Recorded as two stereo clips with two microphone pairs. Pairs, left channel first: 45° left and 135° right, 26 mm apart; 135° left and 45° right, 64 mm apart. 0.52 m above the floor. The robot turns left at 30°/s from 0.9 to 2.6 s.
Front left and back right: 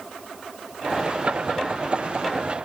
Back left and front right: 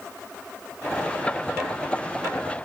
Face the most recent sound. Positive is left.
No sound to turn to.